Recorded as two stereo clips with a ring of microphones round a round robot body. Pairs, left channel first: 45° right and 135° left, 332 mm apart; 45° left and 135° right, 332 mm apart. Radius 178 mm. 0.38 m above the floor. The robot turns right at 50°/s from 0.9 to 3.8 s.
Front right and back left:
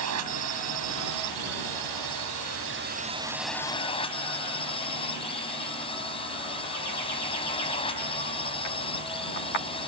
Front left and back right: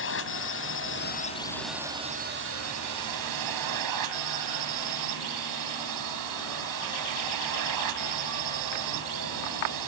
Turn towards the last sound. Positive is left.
turn(degrees=-120)